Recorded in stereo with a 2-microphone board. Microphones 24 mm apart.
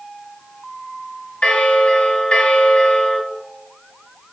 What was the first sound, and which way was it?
A bell, 45° left (ahead or behind).